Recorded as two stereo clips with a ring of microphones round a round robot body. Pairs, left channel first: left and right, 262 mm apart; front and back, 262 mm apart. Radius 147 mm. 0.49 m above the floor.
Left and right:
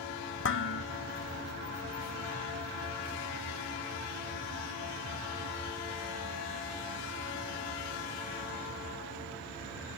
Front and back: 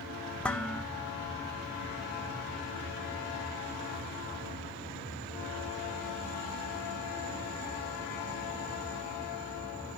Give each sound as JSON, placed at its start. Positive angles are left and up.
{"t": 0.4, "sound": "dishes clattering", "azimuth_deg": 85, "distance_m": 0.8}